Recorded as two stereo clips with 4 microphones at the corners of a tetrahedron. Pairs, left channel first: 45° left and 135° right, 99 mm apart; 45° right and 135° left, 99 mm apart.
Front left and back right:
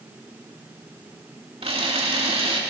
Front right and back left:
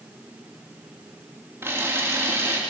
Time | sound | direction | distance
1.6 | a camera shutter | 160° right | 3 m